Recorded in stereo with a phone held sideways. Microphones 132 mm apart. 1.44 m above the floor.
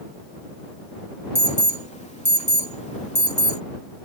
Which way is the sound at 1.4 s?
60° left (ahead or behind).